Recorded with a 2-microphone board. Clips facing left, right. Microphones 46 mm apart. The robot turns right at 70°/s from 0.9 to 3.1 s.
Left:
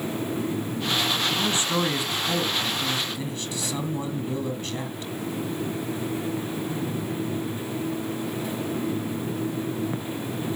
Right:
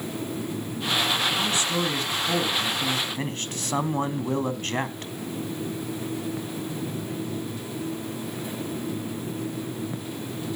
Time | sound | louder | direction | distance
1.3 | a man speaking | left 1 dB | 120° left | 1.8 m